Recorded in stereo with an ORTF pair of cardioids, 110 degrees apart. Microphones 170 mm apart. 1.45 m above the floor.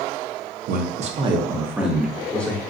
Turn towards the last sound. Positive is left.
turn(degrees=10)